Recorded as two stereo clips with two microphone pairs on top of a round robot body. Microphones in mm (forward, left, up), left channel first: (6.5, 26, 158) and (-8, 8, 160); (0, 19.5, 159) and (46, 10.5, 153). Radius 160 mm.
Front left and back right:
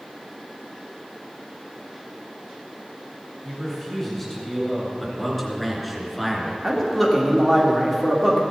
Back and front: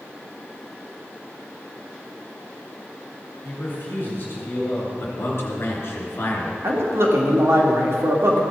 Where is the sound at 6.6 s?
35° right, 2.5 m.